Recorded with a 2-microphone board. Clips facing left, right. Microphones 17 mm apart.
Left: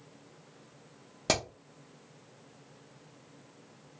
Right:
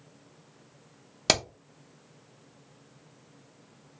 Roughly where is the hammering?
Right.